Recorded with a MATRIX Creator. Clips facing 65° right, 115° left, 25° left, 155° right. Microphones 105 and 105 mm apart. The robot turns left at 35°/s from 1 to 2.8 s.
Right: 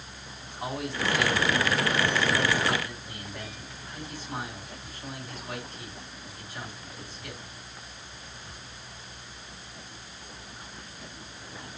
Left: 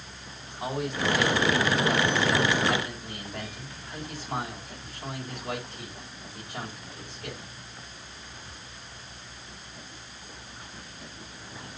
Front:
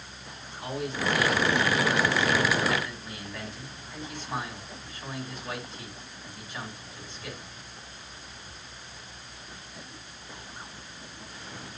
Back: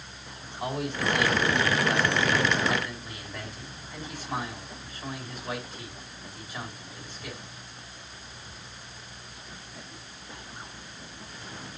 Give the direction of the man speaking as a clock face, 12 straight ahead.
6 o'clock.